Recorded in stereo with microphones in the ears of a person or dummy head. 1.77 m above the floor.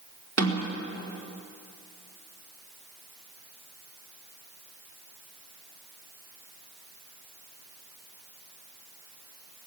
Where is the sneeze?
I don't hear a sneeze.